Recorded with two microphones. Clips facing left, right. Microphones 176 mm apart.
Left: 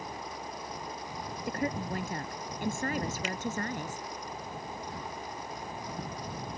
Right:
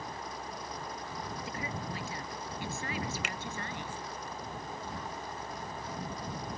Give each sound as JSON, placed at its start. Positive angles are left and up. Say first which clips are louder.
{"t": 1.5, "sound": "a woman speaking", "louder": "left 11 dB", "side_deg": 55}
{"t": 3.2, "sound": "a finger snap", "louder": "left 5 dB", "side_deg": -70}